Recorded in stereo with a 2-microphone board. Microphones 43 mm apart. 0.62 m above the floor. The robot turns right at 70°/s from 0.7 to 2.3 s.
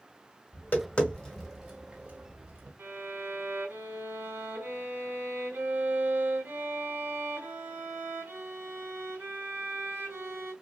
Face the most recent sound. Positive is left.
turn(degrees=-85)